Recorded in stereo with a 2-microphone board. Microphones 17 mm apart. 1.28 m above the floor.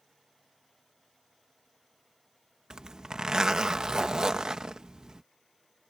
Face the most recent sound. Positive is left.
turn(degrees=-40)  # may be behind; listen again after turning